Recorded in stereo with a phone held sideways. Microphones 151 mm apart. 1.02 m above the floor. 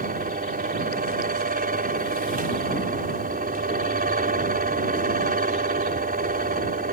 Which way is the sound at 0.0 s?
75° right (ahead or behind).